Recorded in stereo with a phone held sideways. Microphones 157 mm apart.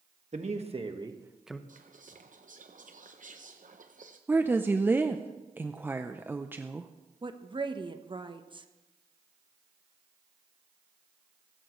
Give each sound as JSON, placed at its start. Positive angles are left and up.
{"t": 0.3, "sound": "a man speaking", "side_deg": -50, "distance_m": 1.8}
{"t": 1.7, "sound": "whispering", "side_deg": -55, "distance_m": 0.7}
{"t": 4.3, "sound": "a woman speaking", "side_deg": -15, "distance_m": 0.5}
{"t": 7.2, "sound": "a woman speaking", "side_deg": -30, "distance_m": 1.0}